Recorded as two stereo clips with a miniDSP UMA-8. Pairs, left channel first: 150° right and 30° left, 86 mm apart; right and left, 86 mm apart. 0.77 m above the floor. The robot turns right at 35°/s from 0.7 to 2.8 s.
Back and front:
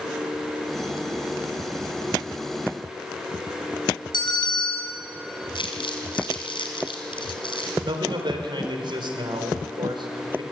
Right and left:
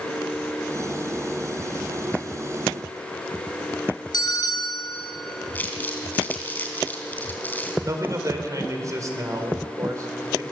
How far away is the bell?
About 5 m.